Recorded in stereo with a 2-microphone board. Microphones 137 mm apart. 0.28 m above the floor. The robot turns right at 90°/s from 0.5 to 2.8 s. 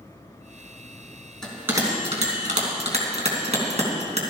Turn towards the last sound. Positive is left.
turn(degrees=-55)  # may be behind; listen again after turning